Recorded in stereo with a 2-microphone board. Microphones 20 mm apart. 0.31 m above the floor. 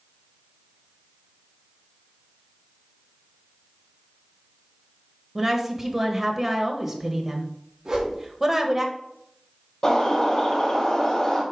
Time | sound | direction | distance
5.3 | a woman speaking | 10° right (ahead or behind) | 1.2 m
7.8 | a whoosh | 25° right (ahead or behind) | 2.5 m
9.8 | a bird | 40° left (ahead or behind) | 4 m